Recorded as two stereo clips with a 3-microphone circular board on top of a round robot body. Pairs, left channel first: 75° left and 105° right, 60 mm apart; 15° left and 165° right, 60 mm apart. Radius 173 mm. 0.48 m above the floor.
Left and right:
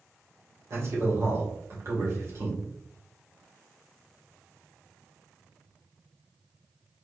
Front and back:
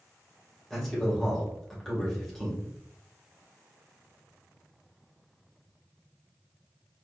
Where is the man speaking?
70° right, 2.5 m.